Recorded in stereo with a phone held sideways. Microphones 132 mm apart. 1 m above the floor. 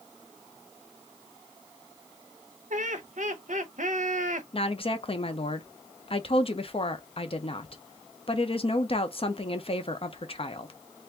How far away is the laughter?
About 0.6 m.